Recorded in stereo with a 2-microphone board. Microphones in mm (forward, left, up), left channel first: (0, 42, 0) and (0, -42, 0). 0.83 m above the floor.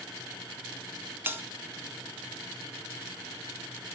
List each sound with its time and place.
1.3 s a bell: 25° right (ahead or behind), 0.7 m